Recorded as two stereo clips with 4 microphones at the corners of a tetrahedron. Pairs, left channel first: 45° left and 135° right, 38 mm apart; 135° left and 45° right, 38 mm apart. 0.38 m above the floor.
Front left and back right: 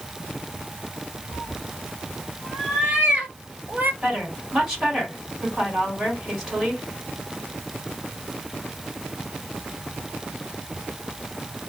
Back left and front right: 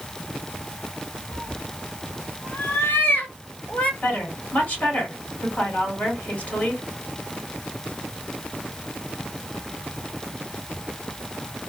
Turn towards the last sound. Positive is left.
turn(degrees=150)